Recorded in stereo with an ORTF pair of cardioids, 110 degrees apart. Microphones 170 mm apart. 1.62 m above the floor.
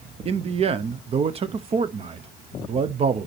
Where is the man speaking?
35° right, 0.7 m.